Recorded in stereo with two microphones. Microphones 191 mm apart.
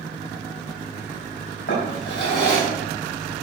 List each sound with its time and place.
1.7 s a drawer: 75° left (ahead or behind), 3 m